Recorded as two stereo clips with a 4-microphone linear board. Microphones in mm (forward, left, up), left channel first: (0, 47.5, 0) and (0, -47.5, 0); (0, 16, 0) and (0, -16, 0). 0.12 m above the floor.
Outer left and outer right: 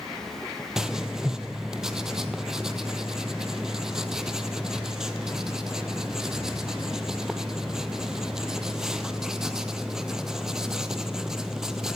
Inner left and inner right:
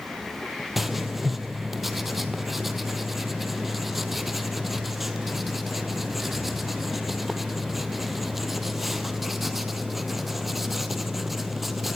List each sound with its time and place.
0.8 s writing: 5° right (ahead or behind), 1.5 m